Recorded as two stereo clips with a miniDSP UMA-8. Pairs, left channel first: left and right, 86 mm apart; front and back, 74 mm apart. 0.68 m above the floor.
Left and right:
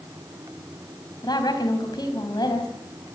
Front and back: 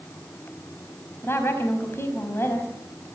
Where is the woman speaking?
55° left, 4 m.